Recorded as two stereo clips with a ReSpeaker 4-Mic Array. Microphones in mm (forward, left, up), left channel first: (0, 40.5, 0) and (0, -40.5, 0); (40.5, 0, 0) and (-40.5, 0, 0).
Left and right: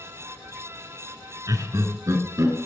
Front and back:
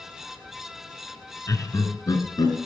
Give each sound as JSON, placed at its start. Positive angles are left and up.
{"t": 1.5, "sound": "laughter", "azimuth_deg": -45, "distance_m": 2.0}